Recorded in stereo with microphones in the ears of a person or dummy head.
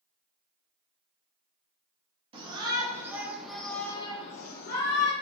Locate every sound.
2.3 s a shout: 25° right (ahead or behind), 1.9 m; by 5.1 s 70° left (ahead or behind), 1.4 m